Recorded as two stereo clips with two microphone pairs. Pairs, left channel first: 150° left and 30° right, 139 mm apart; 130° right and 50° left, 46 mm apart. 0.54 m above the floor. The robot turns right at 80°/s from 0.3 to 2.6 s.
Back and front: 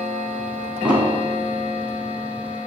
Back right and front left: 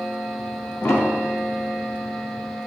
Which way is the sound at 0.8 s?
115° right.